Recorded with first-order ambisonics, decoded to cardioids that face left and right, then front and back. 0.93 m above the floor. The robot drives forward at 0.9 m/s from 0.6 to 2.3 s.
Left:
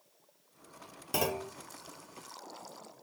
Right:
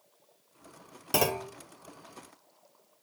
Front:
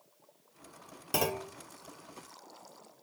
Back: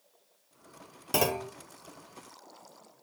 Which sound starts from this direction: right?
A clunk, at 1.1 s.